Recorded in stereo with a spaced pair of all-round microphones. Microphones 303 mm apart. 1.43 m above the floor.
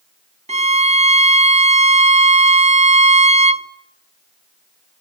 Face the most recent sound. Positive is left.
turn(degrees=-20)  # may be behind; listen again after turning